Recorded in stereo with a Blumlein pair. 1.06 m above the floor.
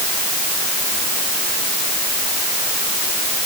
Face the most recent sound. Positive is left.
No sound to turn to.